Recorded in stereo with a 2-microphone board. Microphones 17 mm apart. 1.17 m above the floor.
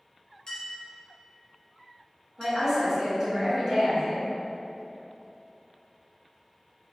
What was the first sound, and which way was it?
A clink, 40° left (ahead or behind).